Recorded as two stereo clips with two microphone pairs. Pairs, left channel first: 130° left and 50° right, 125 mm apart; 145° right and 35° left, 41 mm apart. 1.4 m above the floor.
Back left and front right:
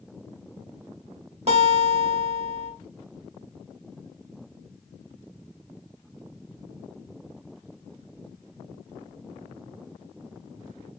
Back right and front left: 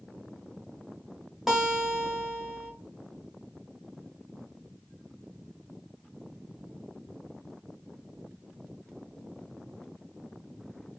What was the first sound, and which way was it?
A guitar, 45° right.